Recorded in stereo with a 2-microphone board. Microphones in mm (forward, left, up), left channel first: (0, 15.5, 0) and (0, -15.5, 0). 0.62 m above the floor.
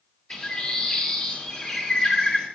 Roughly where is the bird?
Left.